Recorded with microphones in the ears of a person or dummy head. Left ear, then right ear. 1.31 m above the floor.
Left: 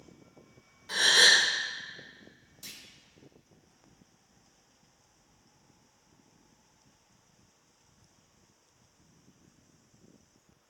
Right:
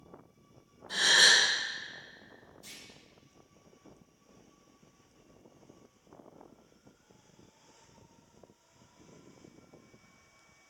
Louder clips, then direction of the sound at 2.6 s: Left 4 dB; 70° left (ahead or behind).